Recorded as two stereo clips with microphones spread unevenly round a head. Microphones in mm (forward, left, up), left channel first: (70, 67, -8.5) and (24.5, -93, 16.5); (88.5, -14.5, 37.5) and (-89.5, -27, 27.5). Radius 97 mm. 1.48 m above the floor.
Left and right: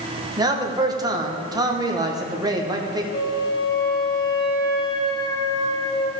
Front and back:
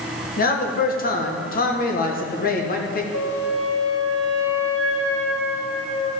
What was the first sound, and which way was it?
A man speaking, 35° right.